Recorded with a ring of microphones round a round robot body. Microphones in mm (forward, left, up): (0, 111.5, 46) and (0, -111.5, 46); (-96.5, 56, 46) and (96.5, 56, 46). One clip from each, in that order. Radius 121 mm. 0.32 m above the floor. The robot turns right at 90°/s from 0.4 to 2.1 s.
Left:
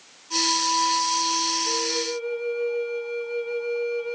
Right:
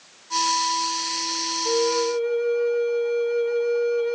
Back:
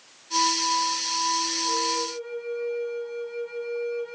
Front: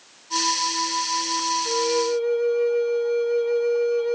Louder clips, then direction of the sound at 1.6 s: Right 4 dB, front 4 dB; 60° right.